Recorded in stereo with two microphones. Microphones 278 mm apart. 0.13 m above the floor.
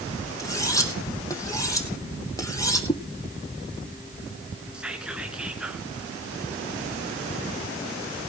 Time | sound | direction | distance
0.4 | cutlery clinking | 10° left (ahead or behind) | 3 m
2.9 | a whoosh | 15° left (ahead or behind) | 1.9 m
4.7 | whispering | 5° right (ahead or behind) | 1.7 m